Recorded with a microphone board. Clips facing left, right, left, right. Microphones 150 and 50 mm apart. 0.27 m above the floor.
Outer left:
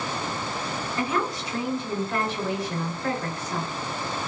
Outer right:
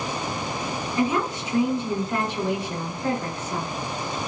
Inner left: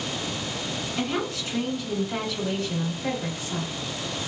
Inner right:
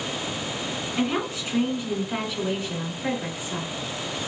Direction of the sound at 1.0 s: 15° right (ahead or behind).